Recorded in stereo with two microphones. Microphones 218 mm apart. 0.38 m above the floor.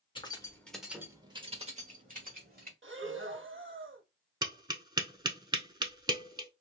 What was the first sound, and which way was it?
Keys jangling, 20° left (ahead or behind).